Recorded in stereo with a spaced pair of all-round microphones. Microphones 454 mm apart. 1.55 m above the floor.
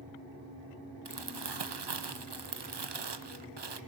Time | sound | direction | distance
1.1 | crumpling | 65° right (ahead or behind) | 0.6 m